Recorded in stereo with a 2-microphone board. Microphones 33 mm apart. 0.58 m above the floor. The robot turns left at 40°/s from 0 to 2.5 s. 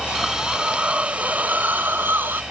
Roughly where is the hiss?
Ahead.